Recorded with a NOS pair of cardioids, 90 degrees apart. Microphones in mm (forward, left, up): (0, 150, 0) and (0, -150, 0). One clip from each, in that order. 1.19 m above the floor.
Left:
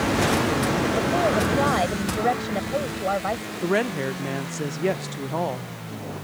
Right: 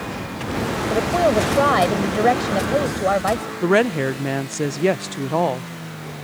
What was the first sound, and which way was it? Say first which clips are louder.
A woman speaking: right 7 dB; 45° right.